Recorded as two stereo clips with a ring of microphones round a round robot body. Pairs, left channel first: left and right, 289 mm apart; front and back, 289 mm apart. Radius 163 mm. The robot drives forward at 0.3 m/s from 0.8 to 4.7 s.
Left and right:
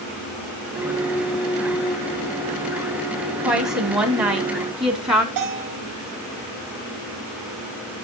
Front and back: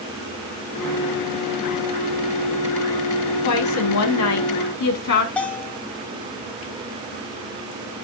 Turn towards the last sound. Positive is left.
turn(degrees=-85)